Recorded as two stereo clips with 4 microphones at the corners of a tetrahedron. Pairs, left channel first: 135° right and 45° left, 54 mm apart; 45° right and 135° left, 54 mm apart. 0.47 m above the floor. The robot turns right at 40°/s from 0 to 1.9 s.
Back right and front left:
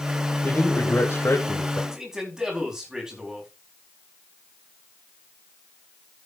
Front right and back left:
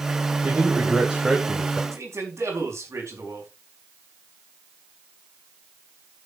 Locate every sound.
0.4 s a man speaking: straight behind, 2.5 m; by 1.8 s 125° right, 2.5 m
1.9 s a man speaking: 125° left, 5 m